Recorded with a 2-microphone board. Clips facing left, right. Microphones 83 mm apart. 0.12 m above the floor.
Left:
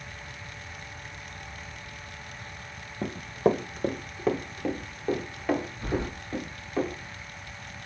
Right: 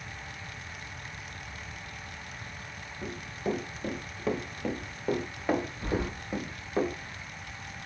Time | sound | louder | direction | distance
3.0 | running footsteps | left 9 dB | 80° left | 0.6 m
5.8 | keys jangling | left 1 dB | 5° right (ahead or behind) | 2 m